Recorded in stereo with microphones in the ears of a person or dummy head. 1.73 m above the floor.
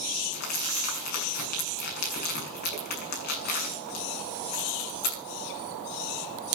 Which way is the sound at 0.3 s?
50° left (ahead or behind).